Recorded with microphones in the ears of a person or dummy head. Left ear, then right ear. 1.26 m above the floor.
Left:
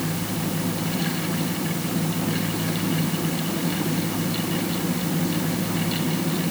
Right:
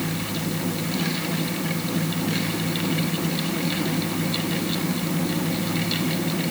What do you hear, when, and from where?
Only background noise.